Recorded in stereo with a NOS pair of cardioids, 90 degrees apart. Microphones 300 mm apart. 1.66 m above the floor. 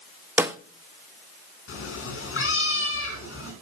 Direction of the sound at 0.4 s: 10° right.